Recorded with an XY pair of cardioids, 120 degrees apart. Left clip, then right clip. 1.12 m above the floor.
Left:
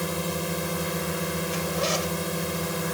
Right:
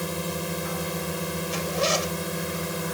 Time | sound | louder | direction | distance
0.0 | a drone | left 1 dB | 10° left | ?
1.5 | a zipper | right 3 dB | 20° right | ?